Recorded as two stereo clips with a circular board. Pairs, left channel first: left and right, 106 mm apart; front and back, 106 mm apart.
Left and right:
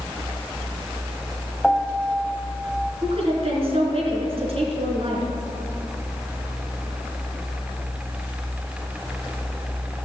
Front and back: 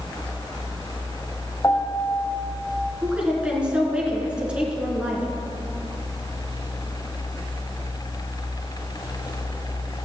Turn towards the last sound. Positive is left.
turn(degrees=-100)